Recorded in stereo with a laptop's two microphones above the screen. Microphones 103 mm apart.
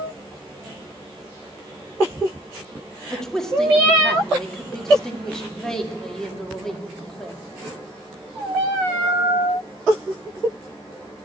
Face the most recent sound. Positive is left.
turn(degrees=5)  # may be behind; listen again after turning